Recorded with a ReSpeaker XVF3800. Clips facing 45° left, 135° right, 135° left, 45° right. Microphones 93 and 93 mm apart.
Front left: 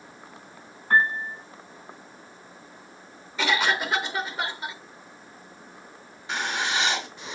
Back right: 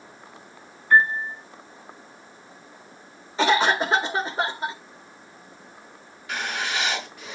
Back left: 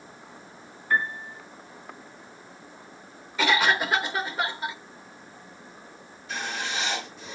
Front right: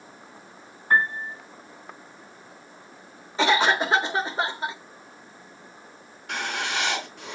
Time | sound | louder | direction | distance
0.9 | a piano | back right 3 dB, front right 4 dB | straight ahead | 3 m
3.4 | a cough | back right 5 dB, front right 2 dB | 95° right | 1.8 m
6.3 | writing | front left 1 dB, front right 3 dB | 20° right | 4 m